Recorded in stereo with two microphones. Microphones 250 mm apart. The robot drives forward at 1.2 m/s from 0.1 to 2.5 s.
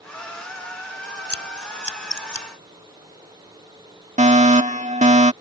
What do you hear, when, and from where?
1.3 s scissors: 70° left (ahead or behind); by 2.5 s 75° left (ahead or behind)
4.2 s a fire alarm: 30° right (ahead or behind)